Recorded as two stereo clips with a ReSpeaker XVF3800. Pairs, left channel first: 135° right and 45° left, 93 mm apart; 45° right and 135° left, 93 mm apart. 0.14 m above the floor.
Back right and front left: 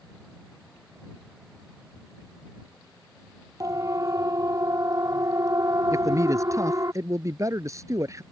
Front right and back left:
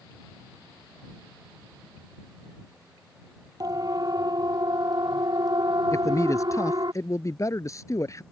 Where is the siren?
95° left; by 6.9 s 100° left.